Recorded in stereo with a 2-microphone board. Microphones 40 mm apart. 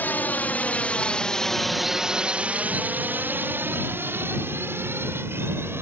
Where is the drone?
45° left (ahead or behind); by 5.8 s 70° right (ahead or behind).